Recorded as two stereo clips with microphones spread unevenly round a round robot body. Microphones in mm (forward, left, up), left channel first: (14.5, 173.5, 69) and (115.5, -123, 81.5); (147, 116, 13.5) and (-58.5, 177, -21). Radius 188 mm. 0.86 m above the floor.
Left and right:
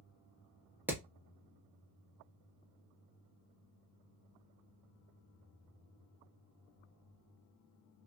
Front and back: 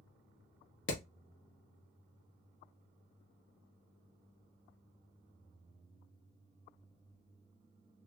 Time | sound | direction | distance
0.9 | hammering | 15° left | 1.4 m